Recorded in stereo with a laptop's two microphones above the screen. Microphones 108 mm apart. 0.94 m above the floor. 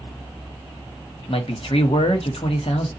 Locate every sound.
1.3 s a man speaking: 65° left (ahead or behind), 1.1 m